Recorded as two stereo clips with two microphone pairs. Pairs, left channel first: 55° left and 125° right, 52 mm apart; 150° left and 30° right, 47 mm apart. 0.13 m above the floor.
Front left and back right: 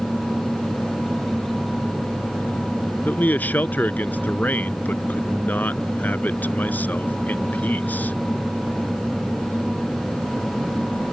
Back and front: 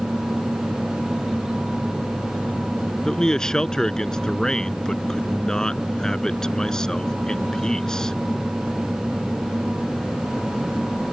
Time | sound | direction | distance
3.0 | a man speaking | 85° left | ?